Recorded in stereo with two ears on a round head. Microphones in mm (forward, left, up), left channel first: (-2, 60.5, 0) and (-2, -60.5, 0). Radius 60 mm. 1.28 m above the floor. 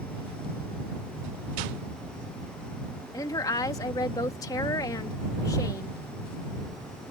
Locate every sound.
3.1 s a woman speaking: 25° left (ahead or behind)